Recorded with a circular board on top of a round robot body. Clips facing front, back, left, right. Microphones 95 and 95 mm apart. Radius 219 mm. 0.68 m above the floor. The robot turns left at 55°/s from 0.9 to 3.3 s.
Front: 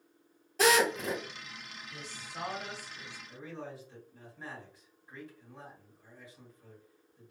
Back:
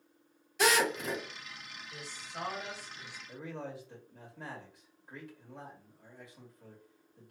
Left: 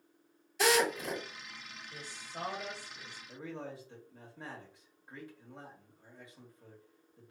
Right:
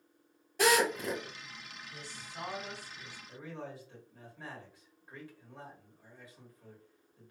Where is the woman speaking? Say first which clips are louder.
Even, left 2 dB; 130° left, 1.2 m; by 3.2 s 60° left, 1.2 m.